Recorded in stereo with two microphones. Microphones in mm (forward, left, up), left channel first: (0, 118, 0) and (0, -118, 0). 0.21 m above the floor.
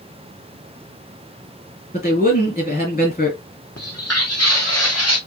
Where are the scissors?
No scissors in this recording.